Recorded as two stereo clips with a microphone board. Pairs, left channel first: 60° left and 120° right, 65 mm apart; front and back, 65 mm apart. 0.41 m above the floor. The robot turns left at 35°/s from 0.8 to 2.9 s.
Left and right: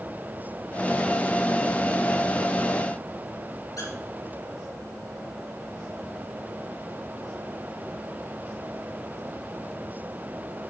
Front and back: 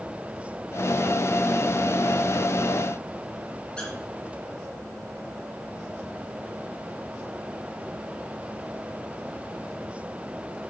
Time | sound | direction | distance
3.8 | a squeak | 75° left | 4 m